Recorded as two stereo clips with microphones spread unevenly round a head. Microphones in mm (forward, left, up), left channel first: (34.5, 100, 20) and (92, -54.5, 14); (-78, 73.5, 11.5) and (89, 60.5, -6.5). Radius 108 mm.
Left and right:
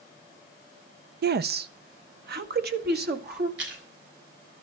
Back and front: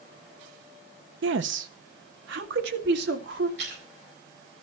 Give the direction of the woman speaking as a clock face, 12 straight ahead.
1 o'clock.